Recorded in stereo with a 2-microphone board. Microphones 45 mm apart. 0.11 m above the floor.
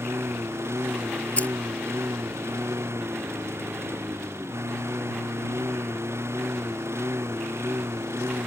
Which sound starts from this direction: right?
A lawn mower, at 0.0 s.